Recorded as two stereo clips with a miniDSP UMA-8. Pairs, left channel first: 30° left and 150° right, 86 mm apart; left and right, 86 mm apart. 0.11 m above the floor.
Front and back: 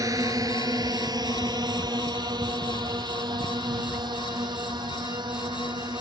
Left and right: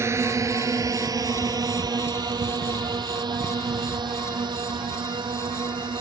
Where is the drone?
130° right; by 6.0 s 120° right.